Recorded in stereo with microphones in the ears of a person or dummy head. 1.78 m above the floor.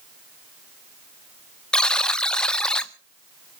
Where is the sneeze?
I don't hear a sneeze.